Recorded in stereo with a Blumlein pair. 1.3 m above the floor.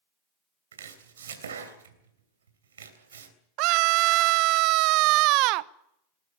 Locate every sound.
0.7 s chopping: 65° right, 3 m
3.6 s a scream: 40° right, 0.8 m